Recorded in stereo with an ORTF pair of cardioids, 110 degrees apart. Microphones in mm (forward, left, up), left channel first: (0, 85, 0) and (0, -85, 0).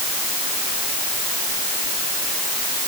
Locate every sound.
Only background noise.